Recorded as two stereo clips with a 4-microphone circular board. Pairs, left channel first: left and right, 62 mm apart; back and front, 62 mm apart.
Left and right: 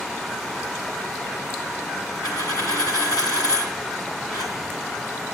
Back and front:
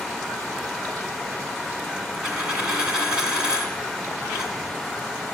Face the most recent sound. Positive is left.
turn(degrees=80)